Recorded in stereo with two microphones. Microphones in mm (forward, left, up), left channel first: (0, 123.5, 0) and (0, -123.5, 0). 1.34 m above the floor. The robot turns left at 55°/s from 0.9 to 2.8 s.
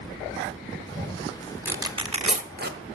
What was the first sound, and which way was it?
Tearing paper, 5° right (ahead or behind).